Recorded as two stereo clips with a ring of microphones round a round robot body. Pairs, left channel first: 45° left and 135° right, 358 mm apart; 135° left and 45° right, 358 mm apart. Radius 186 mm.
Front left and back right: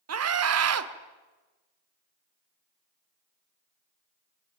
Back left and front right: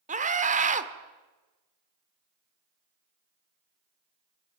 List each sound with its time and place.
0.1 s a scream: 110° right, 1.7 m